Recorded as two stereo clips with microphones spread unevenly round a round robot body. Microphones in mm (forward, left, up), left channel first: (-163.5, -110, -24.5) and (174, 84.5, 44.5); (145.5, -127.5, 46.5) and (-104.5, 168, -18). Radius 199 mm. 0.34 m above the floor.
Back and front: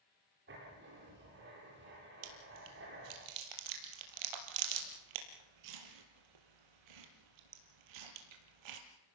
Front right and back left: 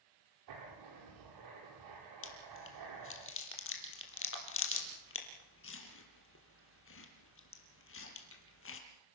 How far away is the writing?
About 10 m.